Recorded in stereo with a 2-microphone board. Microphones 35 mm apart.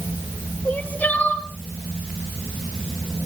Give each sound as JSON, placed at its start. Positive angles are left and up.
{"t": 0.7, "sound": "crying", "side_deg": 45, "distance_m": 4.0}